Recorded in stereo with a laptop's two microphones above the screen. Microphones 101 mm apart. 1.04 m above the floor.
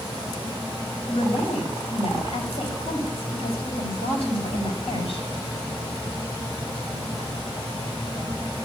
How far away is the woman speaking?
About 5 m.